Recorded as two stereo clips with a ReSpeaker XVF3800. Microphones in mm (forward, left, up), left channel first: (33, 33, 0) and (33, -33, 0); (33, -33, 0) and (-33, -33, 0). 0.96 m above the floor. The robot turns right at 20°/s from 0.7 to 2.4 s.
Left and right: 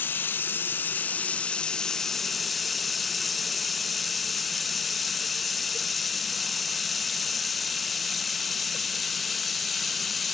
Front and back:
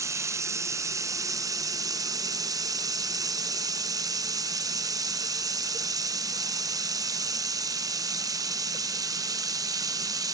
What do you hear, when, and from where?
0.0 s running water: 145° left, 0.8 m; by 10.3 s straight behind, 0.8 m